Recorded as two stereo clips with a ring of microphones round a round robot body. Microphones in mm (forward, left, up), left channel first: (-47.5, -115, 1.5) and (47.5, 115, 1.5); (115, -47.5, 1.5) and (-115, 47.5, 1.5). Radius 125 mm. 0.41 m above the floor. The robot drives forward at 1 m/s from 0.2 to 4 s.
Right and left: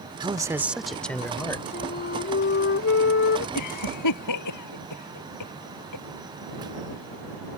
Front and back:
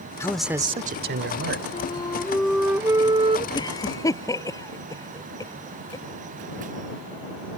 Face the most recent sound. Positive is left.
turn(degrees=-100)